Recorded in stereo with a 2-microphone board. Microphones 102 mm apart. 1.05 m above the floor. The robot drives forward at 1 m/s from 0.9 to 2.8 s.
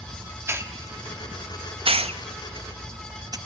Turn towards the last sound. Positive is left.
turn(degrees=-40)  # may be behind; listen again after turning